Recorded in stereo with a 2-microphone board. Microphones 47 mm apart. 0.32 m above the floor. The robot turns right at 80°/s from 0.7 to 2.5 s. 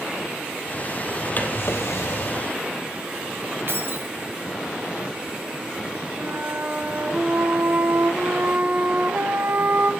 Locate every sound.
1.4 s a drawer: 35° left, 2 m; by 2.5 s 125° left, 2 m
3.7 s keys jangling: 55° right (ahead or behind), 1.4 m
6.2 s a flute: 45° right (ahead or behind), 1.1 m